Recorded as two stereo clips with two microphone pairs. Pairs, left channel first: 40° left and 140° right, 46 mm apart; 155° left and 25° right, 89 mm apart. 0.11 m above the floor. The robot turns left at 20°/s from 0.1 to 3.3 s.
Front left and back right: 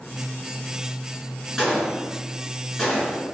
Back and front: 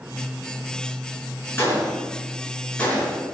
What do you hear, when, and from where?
1.6 s a gunshot: 150° left, 1.6 m; by 3.4 s 115° left, 1.6 m